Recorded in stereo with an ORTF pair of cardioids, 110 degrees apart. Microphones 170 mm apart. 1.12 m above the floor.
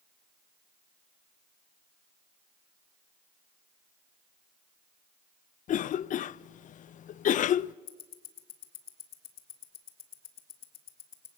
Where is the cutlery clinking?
I don't hear cutlery clinking.